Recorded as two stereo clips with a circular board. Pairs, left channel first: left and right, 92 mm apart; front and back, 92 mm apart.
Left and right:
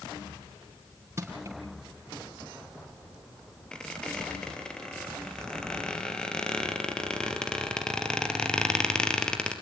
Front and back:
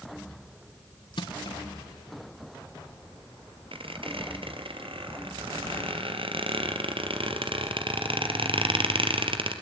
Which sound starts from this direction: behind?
A squeak, at 3.7 s.